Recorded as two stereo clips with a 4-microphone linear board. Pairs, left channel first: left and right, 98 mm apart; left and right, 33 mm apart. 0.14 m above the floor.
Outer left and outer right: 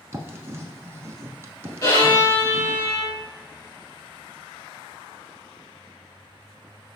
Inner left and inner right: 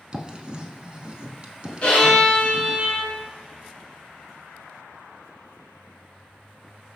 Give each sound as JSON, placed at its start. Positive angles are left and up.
{"t": 0.1, "sound": "writing", "side_deg": -30, "distance_m": 0.5}
{"t": 1.8, "sound": "a violin", "side_deg": 30, "distance_m": 2.0}